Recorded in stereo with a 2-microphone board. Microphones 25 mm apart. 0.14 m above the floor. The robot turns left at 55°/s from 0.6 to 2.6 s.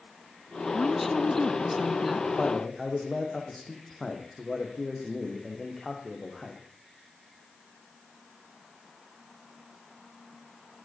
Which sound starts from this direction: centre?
A woman speaking, at 0.7 s.